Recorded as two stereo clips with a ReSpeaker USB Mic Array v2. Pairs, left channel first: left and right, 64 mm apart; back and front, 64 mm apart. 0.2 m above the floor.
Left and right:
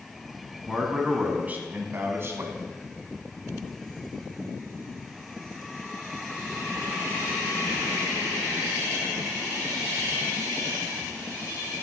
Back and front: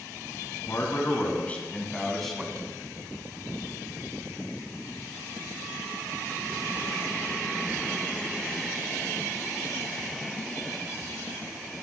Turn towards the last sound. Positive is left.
turn(degrees=-85)